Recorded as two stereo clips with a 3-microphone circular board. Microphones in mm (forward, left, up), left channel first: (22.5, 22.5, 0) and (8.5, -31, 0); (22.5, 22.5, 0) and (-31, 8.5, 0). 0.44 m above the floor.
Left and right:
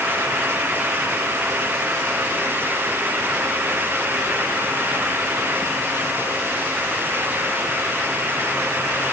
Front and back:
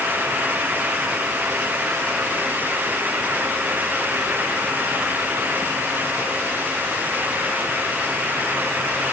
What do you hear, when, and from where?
Only background noise.